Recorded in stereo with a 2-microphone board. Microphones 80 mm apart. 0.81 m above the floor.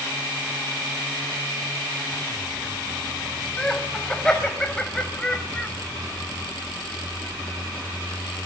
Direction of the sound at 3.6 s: 5° left (ahead or behind).